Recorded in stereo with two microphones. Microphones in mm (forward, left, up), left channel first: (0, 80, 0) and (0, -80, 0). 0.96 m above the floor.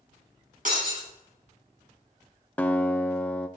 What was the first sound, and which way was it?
Breaking glass, 55° right (ahead or behind).